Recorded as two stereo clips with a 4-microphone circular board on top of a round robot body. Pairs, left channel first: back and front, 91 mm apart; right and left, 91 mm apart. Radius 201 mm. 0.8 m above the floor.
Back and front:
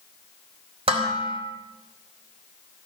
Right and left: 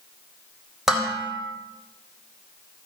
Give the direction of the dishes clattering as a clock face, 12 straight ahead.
12 o'clock.